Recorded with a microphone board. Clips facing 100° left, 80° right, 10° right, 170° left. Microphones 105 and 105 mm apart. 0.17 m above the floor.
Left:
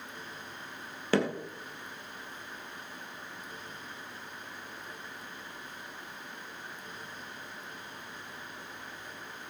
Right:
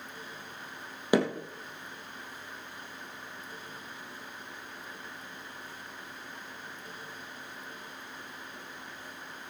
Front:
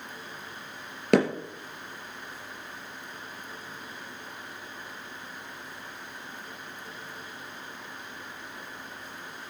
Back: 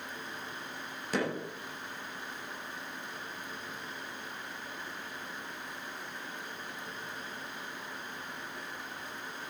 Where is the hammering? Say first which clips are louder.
Right 2 dB, front 11 dB; 5° right, 3 m.